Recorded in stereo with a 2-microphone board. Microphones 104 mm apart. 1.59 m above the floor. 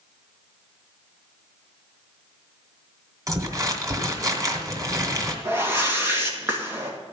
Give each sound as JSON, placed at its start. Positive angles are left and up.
{"t": 3.3, "sound": "crumpling", "side_deg": -35, "distance_m": 1.8}
{"t": 5.5, "sound": "a whoosh", "side_deg": -20, "distance_m": 1.8}